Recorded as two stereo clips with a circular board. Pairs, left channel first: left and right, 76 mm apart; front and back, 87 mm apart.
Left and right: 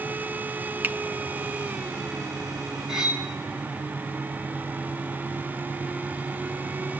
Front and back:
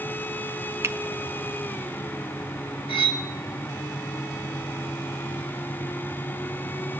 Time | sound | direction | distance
0.8 | a finger snap | 145° right | 0.6 m
2.9 | cutlery clinking | 10° right | 1.4 m